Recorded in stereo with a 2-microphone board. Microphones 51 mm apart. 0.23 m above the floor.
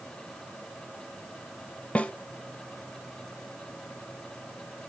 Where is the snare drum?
25° left (ahead or behind), 0.6 m.